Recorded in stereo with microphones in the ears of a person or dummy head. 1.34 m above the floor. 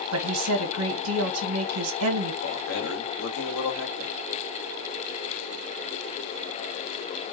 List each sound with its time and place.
0.1 s a woman speaking: 75° right (ahead or behind), 1.2 m
2.4 s a man speaking: 75° left (ahead or behind), 2.0 m